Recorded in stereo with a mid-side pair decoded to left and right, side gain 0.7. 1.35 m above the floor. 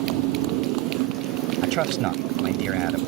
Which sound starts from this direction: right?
A motorcycle, at 0.0 s.